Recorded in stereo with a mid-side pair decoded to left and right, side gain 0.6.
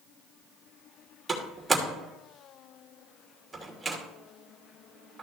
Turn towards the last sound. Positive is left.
turn(degrees=-15)